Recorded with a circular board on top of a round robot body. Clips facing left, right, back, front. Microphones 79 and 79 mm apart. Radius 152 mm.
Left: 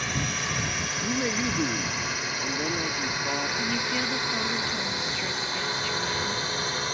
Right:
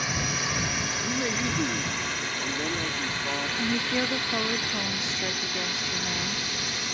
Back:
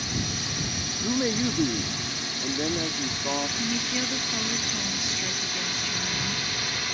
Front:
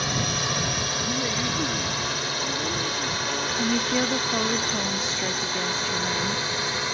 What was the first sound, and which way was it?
A drone, 5° right.